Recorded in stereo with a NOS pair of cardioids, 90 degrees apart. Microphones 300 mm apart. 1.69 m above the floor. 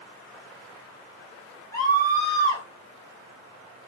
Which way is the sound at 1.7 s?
10° left.